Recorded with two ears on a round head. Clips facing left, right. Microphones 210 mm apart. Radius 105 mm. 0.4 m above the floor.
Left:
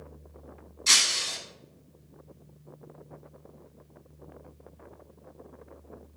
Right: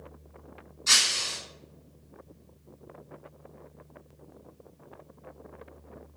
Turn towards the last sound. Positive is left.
turn(degrees=45)  # may be behind; listen again after turning